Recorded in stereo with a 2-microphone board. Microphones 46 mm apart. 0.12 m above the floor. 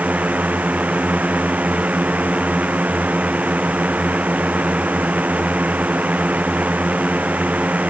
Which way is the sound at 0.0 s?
35° right (ahead or behind).